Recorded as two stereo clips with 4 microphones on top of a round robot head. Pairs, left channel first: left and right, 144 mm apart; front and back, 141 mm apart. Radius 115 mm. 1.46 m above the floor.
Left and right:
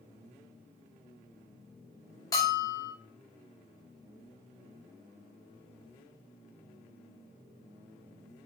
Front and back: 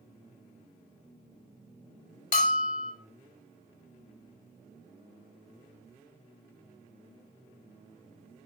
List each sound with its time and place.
2.3 s a bell: 15° left, 1.7 m